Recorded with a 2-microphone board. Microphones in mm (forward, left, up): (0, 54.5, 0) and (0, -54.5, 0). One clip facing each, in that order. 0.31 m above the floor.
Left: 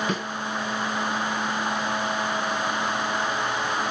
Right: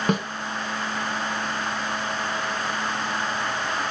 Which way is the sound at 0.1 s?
55° right (ahead or behind).